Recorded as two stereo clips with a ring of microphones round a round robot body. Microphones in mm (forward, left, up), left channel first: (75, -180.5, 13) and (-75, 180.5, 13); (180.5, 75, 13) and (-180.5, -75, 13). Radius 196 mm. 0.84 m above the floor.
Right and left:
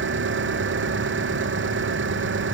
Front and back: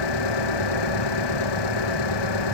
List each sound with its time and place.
0.0 s an engine running: 50° left